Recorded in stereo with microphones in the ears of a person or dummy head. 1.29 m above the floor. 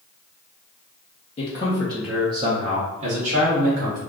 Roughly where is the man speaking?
Left.